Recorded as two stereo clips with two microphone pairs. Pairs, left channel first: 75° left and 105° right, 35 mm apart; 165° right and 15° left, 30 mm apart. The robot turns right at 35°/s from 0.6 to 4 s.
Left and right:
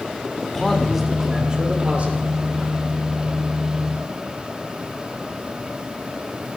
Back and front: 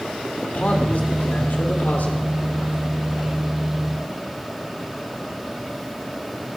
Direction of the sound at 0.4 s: 160° left.